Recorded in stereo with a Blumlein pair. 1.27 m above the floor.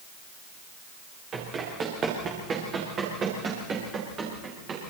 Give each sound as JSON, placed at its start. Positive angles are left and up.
{"t": 1.3, "sound": "running footsteps", "azimuth_deg": -25, "distance_m": 7.5}